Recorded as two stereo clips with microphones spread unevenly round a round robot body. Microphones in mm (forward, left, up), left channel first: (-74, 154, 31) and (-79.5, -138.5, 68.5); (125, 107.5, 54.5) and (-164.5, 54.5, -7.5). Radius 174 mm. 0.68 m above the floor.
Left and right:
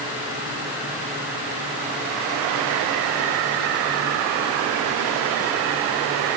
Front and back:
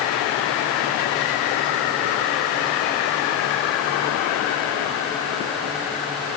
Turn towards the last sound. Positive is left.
No sound to turn to.